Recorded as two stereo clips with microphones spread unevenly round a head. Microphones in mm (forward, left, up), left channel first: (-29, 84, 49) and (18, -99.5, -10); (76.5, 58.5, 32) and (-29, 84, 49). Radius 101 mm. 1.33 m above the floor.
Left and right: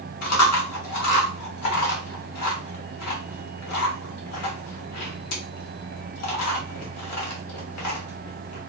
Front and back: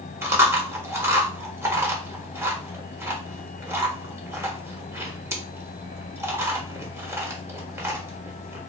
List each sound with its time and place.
0.2 s chewing: 95° left, 1.0 m